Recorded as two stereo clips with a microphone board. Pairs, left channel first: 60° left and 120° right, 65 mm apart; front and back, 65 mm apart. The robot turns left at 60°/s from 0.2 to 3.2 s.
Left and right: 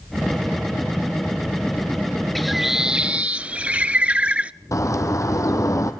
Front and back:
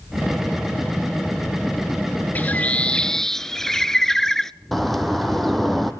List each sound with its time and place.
2.4 s a bird: 25° right, 0.6 m; by 4.5 s 75° right, 0.6 m
4.7 s a bird: 90° left, 2.5 m